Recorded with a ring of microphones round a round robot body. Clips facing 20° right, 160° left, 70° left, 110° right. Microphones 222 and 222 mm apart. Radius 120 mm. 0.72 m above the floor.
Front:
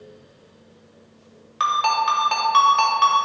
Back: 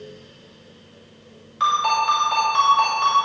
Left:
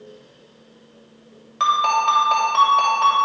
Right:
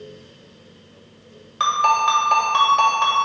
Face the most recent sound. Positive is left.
turn(degrees=-40)